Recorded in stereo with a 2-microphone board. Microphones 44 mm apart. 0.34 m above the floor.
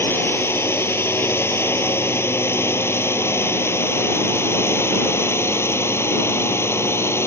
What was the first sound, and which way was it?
A drone, 70° left (ahead or behind).